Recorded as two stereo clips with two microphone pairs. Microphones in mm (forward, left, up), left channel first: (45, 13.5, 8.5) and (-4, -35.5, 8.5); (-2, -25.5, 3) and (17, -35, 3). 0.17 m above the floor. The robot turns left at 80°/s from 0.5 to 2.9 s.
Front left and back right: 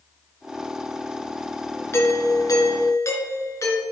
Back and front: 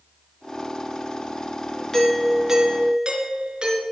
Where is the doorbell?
90° left, 3 m; by 3.8 s 10° left, 3 m.